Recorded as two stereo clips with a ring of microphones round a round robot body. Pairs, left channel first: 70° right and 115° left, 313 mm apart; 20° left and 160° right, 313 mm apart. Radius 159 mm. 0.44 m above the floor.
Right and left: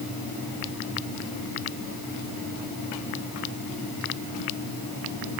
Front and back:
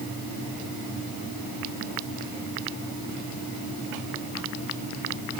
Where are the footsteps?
No footsteps in this recording.